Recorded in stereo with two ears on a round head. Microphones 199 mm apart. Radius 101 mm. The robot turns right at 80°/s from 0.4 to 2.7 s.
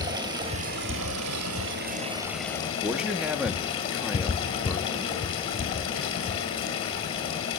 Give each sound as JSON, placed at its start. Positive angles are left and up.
{"t": 0.0, "sound": "running water", "azimuth_deg": -160, "distance_m": 2.0}
{"t": 2.6, "sound": "a man speaking", "side_deg": 0, "distance_m": 0.6}